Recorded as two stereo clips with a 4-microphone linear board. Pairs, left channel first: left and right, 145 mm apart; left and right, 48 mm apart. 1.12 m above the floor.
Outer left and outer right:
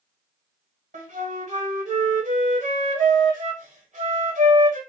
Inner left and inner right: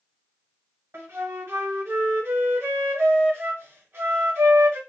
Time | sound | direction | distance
0.9 | a flute | 60° right (ahead or behind) | 1.6 m